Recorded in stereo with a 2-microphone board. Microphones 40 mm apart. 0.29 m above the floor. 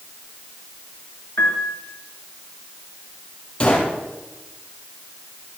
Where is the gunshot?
25° left (ahead or behind), 3.5 m.